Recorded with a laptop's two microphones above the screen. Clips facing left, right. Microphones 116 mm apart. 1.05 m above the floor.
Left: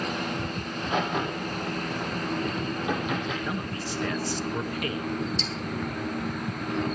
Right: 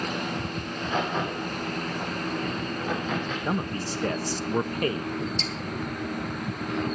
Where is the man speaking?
35° right (ahead or behind), 1.3 m.